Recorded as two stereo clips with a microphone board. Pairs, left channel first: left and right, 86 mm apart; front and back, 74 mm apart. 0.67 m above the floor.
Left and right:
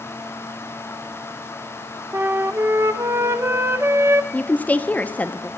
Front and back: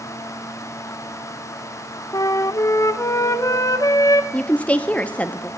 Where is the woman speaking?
45° left, 0.5 m.